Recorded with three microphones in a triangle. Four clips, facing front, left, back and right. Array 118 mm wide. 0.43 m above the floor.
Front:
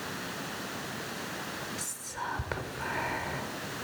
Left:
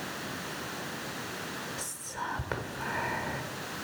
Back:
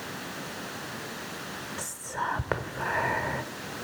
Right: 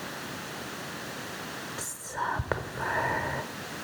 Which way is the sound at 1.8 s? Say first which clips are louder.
Right 4 dB, back 5 dB; 140° right.